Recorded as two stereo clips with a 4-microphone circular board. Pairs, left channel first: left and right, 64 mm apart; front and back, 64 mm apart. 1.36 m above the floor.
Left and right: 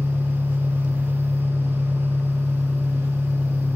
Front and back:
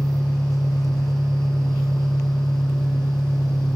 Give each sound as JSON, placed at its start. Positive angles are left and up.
{"t": 0.0, "sound": "an engine running", "azimuth_deg": -15, "distance_m": 4.5}